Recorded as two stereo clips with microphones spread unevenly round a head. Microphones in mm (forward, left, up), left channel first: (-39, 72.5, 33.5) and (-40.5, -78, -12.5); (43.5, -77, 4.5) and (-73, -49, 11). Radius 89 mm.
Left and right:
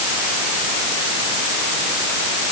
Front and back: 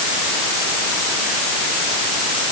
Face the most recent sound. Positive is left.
No sound to turn to.